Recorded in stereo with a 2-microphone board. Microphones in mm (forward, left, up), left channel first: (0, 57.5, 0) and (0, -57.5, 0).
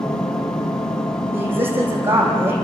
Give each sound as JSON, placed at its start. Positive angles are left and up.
{"t": 0.0, "sound": "an engine running", "side_deg": 30, "distance_m": 2.5}
{"t": 1.3, "sound": "a woman speaking", "side_deg": -20, "distance_m": 10.0}